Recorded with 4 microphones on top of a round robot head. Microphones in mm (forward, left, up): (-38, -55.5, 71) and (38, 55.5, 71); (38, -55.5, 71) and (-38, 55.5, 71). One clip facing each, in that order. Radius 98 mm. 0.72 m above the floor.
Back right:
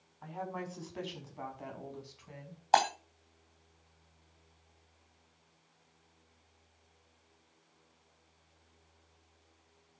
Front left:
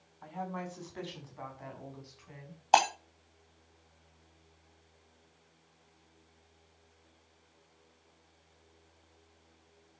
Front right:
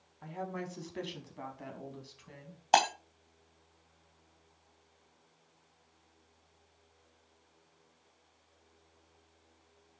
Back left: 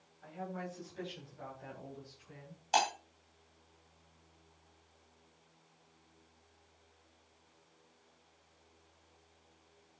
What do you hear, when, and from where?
0.2 s a woman speaking: 40° right, 5.5 m; by 2.6 s 65° right, 5.5 m
2.7 s breaking glass: 20° right, 2 m